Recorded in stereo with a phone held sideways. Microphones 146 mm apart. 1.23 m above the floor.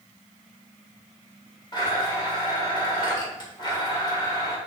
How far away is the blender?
About 3 m.